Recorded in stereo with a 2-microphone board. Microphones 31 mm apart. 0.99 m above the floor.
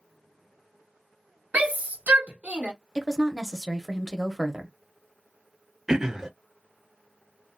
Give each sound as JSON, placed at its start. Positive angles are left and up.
{"t": 1.5, "sound": "a shout", "side_deg": -55, "distance_m": 1.6}
{"t": 3.0, "sound": "a woman speaking", "side_deg": -10, "distance_m": 0.8}
{"t": 5.9, "sound": "throat clearing", "side_deg": -20, "distance_m": 0.6}